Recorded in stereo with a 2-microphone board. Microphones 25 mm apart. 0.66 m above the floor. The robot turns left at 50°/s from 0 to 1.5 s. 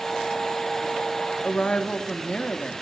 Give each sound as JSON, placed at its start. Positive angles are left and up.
{"t": 1.4, "sound": "a woman speaking", "side_deg": 50, "distance_m": 0.9}